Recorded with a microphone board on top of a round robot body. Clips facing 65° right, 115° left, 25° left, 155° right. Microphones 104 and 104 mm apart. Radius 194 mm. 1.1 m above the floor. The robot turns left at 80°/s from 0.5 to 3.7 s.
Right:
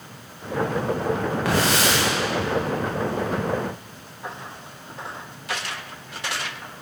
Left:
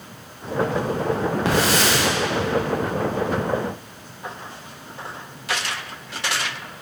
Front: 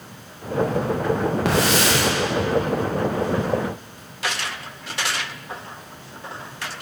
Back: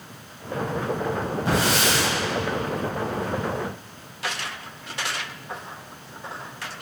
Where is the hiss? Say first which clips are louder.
Left 1 dB, front 1 dB; 45° left, 1.5 m; by 2.0 s straight ahead, 1.5 m.